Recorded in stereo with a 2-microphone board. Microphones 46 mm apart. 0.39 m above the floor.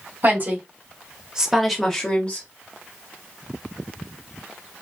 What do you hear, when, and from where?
0.2 s a woman speaking: 50° right (ahead or behind), 1.6 m; by 2.5 s 30° left (ahead or behind), 1.2 m